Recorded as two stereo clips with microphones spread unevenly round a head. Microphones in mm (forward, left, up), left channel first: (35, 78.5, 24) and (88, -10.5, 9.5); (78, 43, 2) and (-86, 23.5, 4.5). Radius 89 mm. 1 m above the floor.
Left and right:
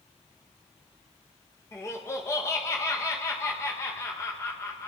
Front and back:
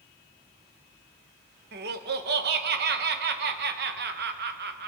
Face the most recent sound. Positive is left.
turn(degrees=-165)